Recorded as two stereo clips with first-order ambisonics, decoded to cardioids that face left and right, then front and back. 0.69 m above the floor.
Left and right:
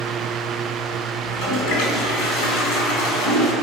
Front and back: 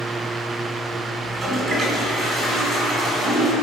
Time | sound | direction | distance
1.2 | a toilet flushing | 120° left | 4 m